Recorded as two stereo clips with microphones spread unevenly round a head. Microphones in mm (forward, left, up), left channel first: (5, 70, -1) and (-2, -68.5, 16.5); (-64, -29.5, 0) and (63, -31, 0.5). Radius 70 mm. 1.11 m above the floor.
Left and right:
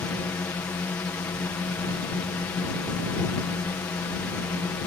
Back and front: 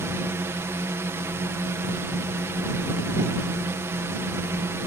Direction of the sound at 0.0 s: 40° left.